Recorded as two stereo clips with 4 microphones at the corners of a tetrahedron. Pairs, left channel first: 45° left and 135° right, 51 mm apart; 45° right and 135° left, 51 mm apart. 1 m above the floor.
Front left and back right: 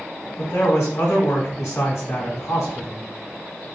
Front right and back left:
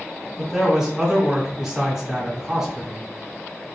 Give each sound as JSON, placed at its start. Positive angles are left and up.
{"t": 0.4, "sound": "a man speaking", "azimuth_deg": 50, "distance_m": 1.6}